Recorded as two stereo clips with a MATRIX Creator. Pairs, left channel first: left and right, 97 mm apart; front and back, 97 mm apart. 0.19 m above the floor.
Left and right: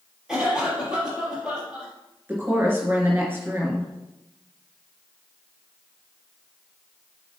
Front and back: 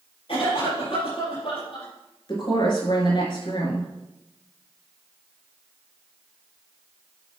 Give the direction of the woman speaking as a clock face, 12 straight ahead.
1 o'clock.